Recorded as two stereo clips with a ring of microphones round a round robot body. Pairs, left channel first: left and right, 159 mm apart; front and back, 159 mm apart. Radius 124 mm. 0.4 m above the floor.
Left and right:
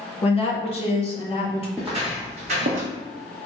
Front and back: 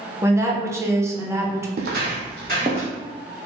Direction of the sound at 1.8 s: Straight behind.